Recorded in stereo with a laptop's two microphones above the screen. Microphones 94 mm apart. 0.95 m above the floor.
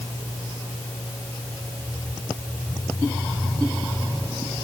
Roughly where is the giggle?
No giggle in this recording.